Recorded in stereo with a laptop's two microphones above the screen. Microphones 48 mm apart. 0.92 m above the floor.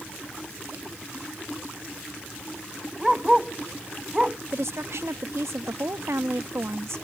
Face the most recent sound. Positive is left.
turn(degrees=-70)  # may be behind; listen again after turning